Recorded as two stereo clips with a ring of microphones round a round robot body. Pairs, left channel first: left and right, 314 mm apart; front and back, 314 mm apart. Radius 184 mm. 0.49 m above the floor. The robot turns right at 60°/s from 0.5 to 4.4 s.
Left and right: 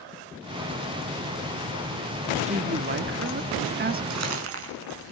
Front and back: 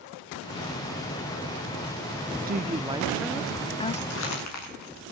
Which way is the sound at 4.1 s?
60° right.